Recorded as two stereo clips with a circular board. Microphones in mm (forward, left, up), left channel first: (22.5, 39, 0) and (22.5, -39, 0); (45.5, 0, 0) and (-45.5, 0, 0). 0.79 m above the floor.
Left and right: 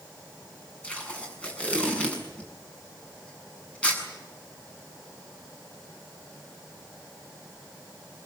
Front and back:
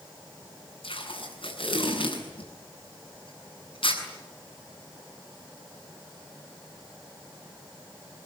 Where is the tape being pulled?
15° left, 7 m.